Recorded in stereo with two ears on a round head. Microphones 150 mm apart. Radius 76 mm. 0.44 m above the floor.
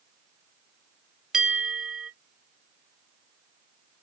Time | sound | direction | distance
1.3 | a bell | 5° right (ahead or behind) | 0.8 m